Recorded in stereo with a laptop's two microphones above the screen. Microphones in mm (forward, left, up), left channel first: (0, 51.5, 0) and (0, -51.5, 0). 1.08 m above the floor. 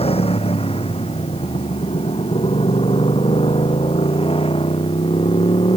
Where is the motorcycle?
70° left (ahead or behind); by 5.8 s 65° left (ahead or behind).